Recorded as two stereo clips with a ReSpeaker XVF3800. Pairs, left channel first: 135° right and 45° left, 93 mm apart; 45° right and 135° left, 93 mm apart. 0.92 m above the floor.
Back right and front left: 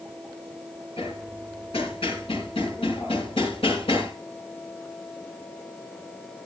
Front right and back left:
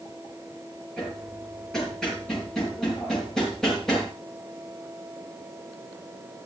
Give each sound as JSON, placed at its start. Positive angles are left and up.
{"t": 1.0, "sound": "hammering", "azimuth_deg": -130, "distance_m": 6.5}